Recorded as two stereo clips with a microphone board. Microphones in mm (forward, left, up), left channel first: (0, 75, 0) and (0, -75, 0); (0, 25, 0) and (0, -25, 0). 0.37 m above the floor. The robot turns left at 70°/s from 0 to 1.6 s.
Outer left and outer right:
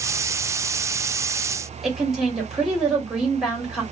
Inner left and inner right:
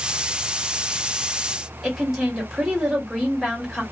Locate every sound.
1.8 s a woman speaking: 5° right (ahead or behind), 1.7 m